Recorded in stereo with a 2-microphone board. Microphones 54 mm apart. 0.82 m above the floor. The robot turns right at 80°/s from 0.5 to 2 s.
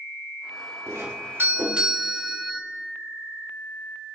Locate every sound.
0.9 s a doorbell: 90° right, 3 m; by 2.6 s straight ahead, 3 m